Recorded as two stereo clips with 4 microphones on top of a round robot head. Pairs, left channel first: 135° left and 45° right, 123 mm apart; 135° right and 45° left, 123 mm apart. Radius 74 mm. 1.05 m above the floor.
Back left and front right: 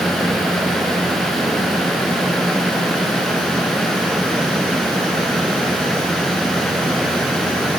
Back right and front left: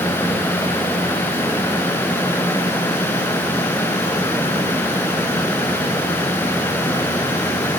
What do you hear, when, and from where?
Only background noise.